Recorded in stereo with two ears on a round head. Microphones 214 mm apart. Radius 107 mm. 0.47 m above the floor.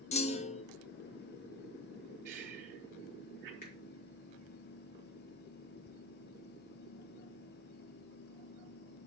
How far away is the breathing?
About 1.5 m.